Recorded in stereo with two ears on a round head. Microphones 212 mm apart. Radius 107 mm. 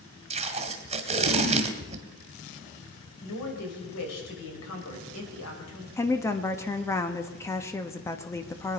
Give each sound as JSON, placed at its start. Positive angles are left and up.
{"t": 0.3, "sound": "tape being pulled", "side_deg": -30, "distance_m": 1.7}
{"t": 3.2, "sound": "a woman speaking", "side_deg": 70, "distance_m": 4.5}
{"t": 6.0, "sound": "a woman speaking", "side_deg": 10, "distance_m": 1.0}